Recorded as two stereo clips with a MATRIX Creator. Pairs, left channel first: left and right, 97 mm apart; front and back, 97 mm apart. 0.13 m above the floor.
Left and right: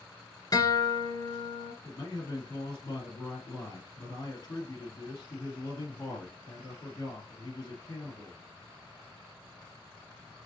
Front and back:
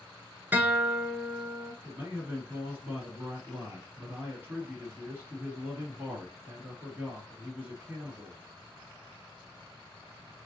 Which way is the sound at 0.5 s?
115° left.